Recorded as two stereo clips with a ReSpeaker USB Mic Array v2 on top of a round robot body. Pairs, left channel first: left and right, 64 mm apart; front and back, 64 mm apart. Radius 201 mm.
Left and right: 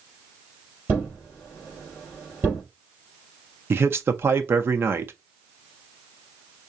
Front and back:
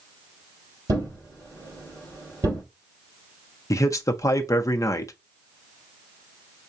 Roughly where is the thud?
Behind right.